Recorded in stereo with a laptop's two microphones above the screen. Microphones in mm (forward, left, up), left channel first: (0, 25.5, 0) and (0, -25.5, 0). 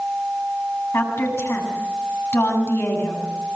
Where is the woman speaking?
55° left (ahead or behind), 7 m.